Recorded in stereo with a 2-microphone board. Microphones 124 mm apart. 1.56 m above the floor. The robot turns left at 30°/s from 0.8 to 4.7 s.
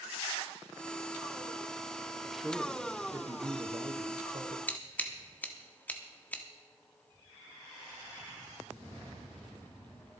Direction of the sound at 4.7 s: 15° left (ahead or behind).